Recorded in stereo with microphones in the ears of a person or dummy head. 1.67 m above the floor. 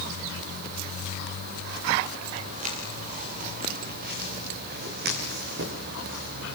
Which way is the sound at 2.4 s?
40° right (ahead or behind).